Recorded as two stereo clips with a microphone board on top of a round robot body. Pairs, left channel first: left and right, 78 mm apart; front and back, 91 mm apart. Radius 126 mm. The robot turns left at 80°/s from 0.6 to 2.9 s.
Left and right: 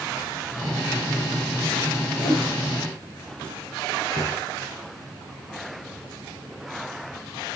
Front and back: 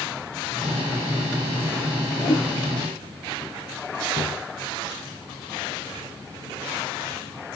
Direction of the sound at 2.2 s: 55° left.